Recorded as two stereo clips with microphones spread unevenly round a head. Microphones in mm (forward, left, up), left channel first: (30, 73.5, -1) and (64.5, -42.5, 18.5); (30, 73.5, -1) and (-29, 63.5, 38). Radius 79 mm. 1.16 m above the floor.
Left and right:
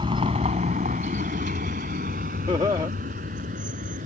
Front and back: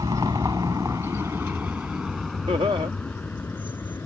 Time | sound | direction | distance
0.0 | a vehicle | 135° right | ?
2.5 | laughter | 140° right | ?